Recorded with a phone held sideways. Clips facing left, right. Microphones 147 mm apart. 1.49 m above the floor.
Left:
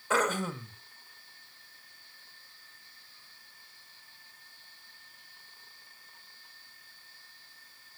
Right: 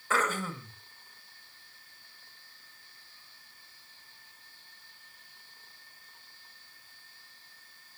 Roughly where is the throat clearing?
Centre.